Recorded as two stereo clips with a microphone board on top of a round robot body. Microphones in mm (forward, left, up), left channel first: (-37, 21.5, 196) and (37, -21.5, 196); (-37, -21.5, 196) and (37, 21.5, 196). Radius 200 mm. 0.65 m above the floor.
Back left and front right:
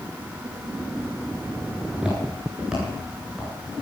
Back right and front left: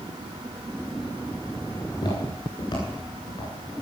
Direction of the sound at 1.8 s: 110° right.